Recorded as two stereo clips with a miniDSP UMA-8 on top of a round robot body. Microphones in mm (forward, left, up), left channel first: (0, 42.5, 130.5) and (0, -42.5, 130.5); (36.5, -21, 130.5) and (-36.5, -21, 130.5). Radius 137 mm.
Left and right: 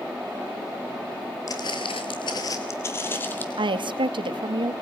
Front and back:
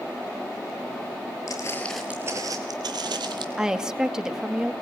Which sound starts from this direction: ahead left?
Footsteps, at 1.5 s.